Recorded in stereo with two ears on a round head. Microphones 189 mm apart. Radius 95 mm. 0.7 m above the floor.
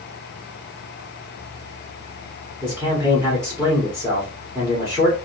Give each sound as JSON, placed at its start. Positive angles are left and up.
{"t": 2.6, "sound": "a man speaking", "side_deg": -15, "distance_m": 1.8}